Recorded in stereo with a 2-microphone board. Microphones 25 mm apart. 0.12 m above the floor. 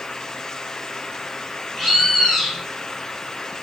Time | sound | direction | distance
1.8 | a bird | 10° left (ahead or behind) | 0.8 m